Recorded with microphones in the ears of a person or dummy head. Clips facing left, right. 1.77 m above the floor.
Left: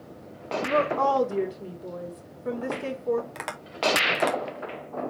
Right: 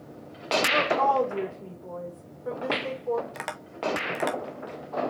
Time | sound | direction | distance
0.6 | a woman speaking | 25° left (ahead or behind) | 3 m
3.4 | tapping | centre (ahead or behind) | 1.1 m